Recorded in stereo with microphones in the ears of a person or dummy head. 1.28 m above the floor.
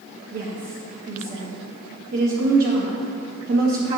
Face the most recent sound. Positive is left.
turn(degrees=-50)  # may be behind; listen again after turning